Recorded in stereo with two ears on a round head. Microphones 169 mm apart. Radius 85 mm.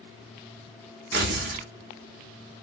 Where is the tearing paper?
60° right (ahead or behind), 0.7 m.